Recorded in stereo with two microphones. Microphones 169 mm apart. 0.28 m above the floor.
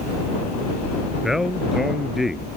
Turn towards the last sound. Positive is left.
turn(degrees=0)  # may be behind; listen again after turning